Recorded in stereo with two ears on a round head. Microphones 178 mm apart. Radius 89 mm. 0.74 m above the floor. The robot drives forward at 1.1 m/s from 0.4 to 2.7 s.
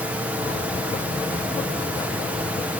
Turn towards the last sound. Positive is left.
No sound to turn to.